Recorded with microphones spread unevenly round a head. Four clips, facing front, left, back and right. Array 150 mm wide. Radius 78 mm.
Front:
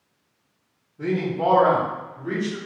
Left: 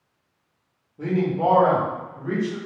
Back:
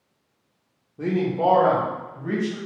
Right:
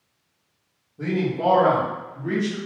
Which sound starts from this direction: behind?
A man speaking, at 1.0 s.